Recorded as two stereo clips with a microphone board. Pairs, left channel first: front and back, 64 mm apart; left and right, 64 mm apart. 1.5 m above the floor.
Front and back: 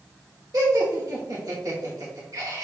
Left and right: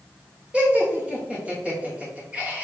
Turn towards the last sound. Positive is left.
turn(degrees=-160)